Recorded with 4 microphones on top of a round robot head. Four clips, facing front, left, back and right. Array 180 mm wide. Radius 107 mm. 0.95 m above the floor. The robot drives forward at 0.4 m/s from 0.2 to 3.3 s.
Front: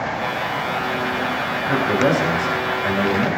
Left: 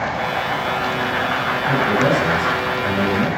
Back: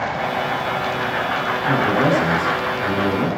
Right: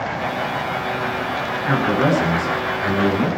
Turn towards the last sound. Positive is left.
turn(degrees=-145)